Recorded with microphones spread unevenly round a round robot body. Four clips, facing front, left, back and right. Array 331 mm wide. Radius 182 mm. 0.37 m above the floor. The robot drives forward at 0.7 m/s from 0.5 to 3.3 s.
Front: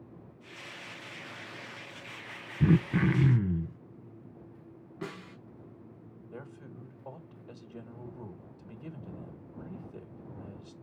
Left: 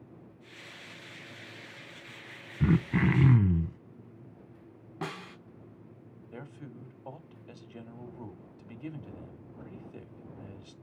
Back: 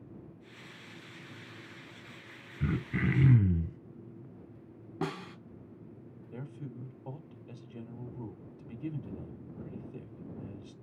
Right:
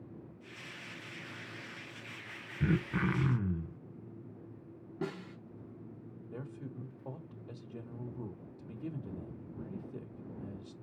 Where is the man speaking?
100° right, 1.3 m.